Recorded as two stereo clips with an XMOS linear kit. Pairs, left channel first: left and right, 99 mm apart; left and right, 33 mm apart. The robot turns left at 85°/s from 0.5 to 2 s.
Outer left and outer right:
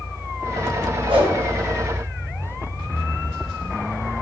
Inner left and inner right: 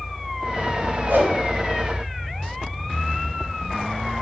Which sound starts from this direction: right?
A whoosh, at 1.1 s.